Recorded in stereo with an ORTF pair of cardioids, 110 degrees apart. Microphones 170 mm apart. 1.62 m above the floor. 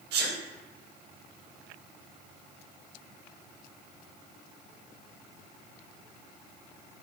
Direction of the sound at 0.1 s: 70° right.